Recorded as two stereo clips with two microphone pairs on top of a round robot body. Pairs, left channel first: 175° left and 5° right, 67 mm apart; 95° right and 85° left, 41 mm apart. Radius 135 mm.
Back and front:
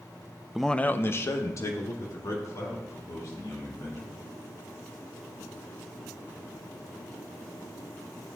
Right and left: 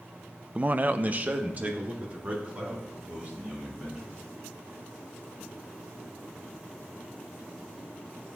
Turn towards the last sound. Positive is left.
turn(degrees=140)